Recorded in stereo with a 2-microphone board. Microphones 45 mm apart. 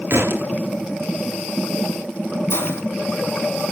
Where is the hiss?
65° left (ahead or behind), 3 m.